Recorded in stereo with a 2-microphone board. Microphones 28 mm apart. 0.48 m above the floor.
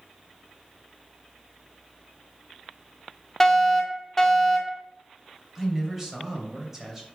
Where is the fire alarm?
15° left (ahead or behind), 1.6 m.